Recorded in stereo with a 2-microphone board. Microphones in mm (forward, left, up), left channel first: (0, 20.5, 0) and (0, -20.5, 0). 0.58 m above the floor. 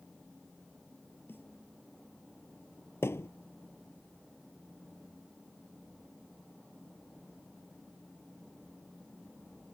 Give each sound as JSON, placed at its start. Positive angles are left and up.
{"t": 1.3, "sound": "a snare drum", "side_deg": 55}
{"t": 3.0, "sound": "a thud", "side_deg": 75}